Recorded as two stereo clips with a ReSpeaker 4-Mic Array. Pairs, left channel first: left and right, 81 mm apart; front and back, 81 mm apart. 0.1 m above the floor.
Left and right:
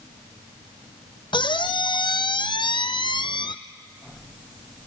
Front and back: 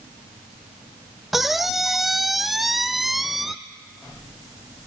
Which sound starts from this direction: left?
A squeak, at 1.3 s.